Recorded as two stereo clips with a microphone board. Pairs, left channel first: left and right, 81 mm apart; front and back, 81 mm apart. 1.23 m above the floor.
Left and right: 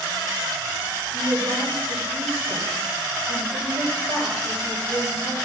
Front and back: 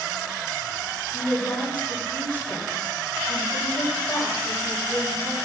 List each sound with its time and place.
1.1 s a woman speaking: 65° right, 7 m